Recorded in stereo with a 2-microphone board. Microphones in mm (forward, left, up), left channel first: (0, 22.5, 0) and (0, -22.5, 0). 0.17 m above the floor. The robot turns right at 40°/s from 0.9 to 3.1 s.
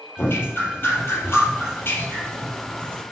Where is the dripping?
70° left, 5 m; by 3.0 s 155° left, 5 m.